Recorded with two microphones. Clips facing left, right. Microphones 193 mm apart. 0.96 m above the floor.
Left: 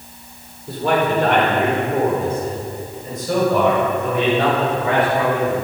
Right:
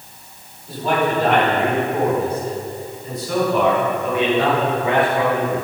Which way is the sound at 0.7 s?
65° left (ahead or behind).